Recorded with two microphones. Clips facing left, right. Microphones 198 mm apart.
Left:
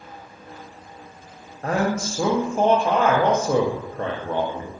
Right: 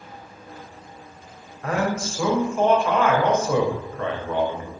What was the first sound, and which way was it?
A man speaking, 35° left (ahead or behind).